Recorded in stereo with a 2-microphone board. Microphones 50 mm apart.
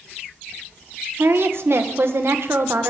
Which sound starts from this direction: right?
A woman speaking, at 1.2 s.